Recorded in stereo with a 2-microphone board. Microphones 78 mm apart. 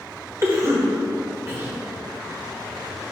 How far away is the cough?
About 1.2 m.